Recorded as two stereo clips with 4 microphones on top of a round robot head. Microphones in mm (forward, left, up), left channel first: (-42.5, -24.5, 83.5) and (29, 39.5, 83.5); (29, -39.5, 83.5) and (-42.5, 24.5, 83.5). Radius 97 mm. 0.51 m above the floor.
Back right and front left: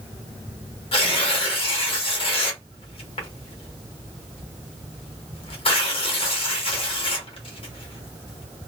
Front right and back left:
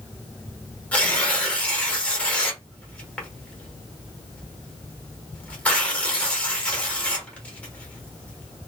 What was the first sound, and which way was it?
Tearing paper, 120° right.